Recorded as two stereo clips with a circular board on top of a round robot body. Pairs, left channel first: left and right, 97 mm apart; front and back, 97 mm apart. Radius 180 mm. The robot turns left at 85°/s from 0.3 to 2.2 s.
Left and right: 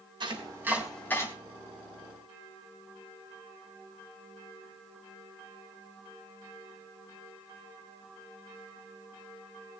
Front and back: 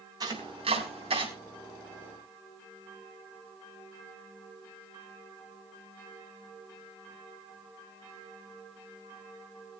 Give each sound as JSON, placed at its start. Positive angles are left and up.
{"t": 0.2, "sound": "chopping", "azimuth_deg": -130, "distance_m": 4.0}